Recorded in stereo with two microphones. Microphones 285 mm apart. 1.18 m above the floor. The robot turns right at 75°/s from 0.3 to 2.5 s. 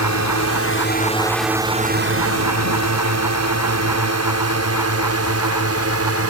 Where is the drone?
70° left (ahead or behind); by 6.3 s 55° right (ahead or behind).